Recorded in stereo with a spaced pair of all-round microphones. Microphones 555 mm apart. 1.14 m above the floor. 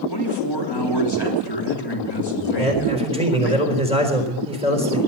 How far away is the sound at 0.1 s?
About 3.5 m.